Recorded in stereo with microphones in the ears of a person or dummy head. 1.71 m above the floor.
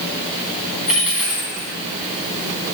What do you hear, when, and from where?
0.9 s a dropped coin: 5° right (ahead or behind), 3.5 m